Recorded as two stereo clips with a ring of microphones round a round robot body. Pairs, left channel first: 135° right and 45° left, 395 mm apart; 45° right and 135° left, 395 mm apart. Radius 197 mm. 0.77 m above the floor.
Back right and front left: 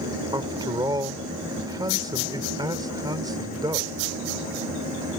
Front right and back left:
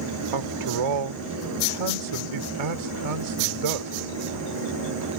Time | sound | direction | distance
0.3 | a man speaking | 125° left | ?